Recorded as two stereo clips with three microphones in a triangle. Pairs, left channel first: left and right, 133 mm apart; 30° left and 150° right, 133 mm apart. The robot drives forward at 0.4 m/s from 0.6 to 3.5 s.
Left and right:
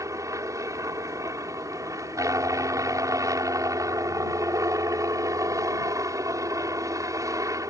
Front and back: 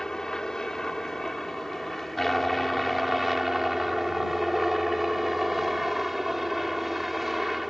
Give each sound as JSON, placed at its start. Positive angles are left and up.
{"t": 0.0, "sound": "a helicopter", "azimuth_deg": -50}